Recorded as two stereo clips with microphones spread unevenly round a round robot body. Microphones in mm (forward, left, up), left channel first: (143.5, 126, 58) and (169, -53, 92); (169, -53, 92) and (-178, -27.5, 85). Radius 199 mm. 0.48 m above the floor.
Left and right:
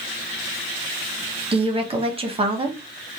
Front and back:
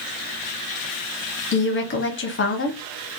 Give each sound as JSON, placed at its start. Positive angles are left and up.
{"t": 1.5, "sound": "a woman speaking", "azimuth_deg": -25, "distance_m": 1.0}